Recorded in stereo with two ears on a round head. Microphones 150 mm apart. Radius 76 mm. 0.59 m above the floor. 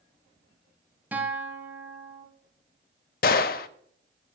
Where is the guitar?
10° right (ahead or behind), 1.5 m.